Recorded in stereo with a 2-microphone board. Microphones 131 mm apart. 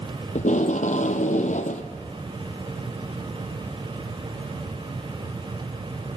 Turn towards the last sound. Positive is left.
turn(degrees=75)  # may be behind; listen again after turning